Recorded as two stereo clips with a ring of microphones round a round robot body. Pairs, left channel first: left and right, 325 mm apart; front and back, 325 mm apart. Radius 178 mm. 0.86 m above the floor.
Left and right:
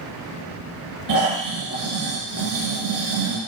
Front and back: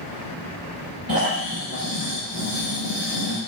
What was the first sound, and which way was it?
Snoring, 105° right.